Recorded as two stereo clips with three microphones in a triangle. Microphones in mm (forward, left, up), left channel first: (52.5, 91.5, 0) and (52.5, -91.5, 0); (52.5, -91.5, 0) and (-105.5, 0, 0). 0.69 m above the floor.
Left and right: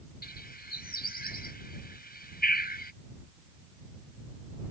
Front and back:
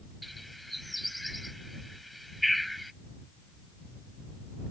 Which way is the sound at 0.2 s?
60° left.